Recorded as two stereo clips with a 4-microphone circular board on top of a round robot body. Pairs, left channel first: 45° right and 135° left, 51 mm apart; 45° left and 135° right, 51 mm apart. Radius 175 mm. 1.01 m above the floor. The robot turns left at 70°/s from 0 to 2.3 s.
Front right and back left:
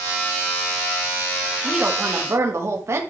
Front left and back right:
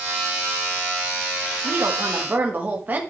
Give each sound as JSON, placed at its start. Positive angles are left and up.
{"t": 1.6, "sound": "a woman speaking", "azimuth_deg": -145, "distance_m": 1.5}